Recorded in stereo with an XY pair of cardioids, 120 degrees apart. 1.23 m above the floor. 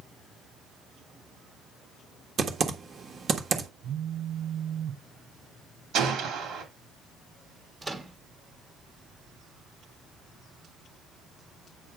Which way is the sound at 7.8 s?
20° right.